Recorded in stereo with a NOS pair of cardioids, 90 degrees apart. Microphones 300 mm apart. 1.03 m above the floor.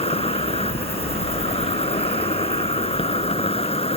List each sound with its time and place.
0.0 s an insect: 20° left